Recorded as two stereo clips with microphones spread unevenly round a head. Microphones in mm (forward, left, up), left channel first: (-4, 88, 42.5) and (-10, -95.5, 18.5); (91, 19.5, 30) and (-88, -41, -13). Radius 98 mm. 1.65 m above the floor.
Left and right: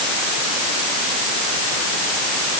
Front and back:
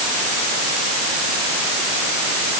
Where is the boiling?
I don't hear boiling.